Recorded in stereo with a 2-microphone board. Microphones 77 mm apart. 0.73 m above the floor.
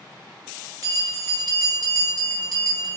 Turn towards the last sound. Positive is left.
turn(degrees=-45)  # may be behind; listen again after turning